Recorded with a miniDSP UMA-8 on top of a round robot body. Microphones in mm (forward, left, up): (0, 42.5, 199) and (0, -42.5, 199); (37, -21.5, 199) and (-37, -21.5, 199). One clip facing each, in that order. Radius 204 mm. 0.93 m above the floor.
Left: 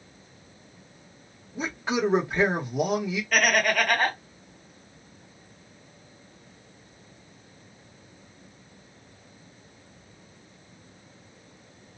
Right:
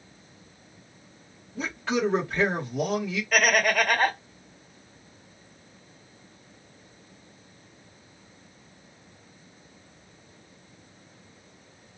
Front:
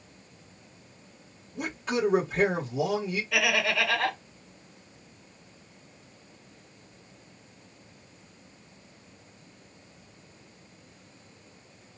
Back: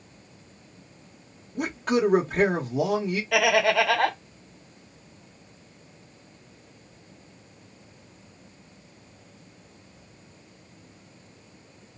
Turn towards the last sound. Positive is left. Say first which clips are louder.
# right 1 dB, back 7 dB
turn(degrees=-175)